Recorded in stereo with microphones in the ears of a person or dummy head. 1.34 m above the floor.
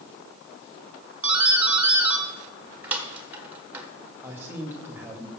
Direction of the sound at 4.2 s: 10° right (ahead or behind).